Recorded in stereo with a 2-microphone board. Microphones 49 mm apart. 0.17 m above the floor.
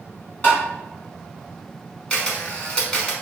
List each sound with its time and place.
0.4 s tapping: 35° left (ahead or behind), 1.5 m
2.1 s a camera shutter: 20° left (ahead or behind), 0.8 m